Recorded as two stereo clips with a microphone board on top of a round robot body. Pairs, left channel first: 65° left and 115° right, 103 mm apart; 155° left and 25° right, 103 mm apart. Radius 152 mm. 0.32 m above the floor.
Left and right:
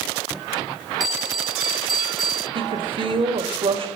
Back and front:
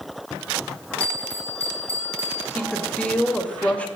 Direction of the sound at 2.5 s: 125° right.